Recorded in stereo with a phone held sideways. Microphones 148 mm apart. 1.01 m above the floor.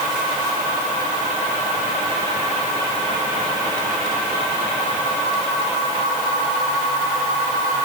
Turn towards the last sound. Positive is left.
No sound to turn to.